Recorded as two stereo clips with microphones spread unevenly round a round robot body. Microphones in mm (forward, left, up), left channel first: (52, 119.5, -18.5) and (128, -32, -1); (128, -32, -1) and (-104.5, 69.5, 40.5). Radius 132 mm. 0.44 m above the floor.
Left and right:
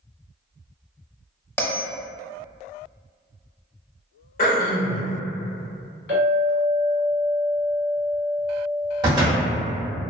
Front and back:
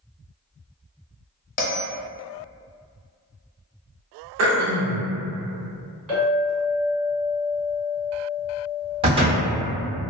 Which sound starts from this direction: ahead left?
A bell, at 1.6 s.